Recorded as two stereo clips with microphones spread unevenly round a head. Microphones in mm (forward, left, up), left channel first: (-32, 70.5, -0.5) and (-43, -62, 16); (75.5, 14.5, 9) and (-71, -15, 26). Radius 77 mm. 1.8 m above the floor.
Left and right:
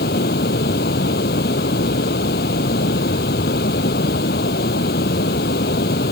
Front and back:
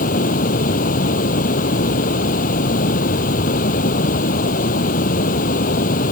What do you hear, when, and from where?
0.0 s running water: 50° left